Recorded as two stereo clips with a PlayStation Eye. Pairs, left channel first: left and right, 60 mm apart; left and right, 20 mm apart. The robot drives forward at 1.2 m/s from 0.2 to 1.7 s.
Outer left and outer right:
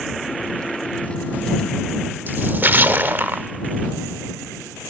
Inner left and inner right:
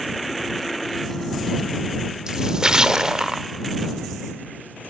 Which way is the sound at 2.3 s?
35° right (ahead or behind).